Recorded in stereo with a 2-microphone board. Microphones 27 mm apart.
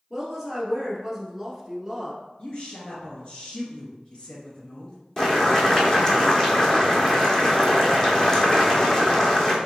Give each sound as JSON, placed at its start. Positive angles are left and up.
{"t": 0.1, "sound": "a woman speaking", "side_deg": 0, "distance_m": 1.3}
{"t": 2.4, "sound": "a woman speaking", "side_deg": 40, "distance_m": 1.8}
{"t": 5.2, "sound": "boiling", "side_deg": 20, "distance_m": 1.1}